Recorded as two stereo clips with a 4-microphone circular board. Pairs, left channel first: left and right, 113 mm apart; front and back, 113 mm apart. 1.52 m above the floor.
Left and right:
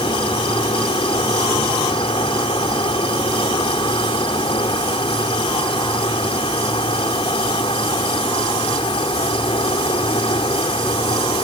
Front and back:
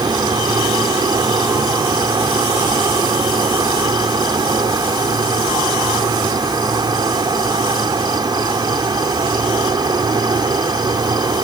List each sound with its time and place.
0.0 s an insect: 125° left